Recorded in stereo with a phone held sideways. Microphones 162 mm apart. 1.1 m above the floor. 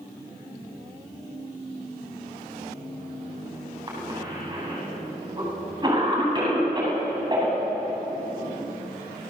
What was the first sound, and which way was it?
A cough, 30° right (ahead or behind).